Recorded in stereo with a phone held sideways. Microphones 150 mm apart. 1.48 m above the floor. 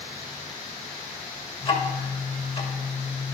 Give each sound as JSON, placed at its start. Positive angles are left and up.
{"t": 1.6, "sound": "ticking", "side_deg": 40, "distance_m": 2.5}